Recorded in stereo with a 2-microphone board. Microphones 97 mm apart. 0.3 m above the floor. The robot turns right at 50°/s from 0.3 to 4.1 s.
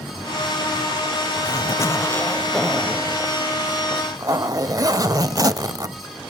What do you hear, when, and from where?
1.4 s a zipper: 110° left, 0.5 m; by 6.0 s 115° right, 0.5 m